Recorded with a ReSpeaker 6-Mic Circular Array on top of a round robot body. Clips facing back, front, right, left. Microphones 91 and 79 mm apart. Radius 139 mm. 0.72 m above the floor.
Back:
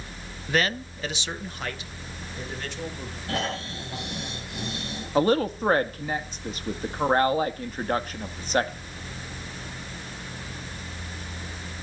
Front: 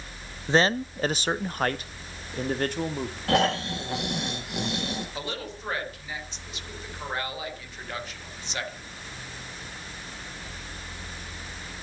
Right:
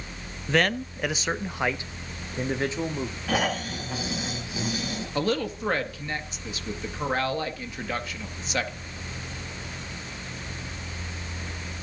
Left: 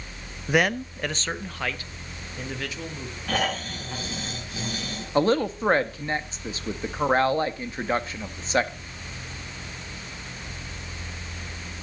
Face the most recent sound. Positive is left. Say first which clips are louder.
# back 14 dB, left 6 dB
turn(degrees=140)